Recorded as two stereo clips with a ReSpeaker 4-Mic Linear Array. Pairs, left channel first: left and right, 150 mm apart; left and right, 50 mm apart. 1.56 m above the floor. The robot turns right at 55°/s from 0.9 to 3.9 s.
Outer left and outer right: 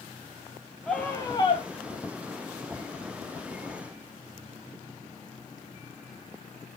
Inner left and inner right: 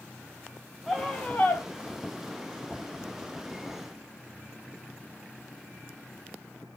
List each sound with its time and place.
0.9 s a scream: 5° left, 3 m; by 1.6 s 45° left, 3 m